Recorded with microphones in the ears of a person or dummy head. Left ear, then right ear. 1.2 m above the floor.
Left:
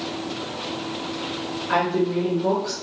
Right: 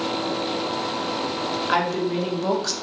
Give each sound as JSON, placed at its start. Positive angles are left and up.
{"t": 1.7, "sound": "a woman speaking", "side_deg": -40, "distance_m": 0.9}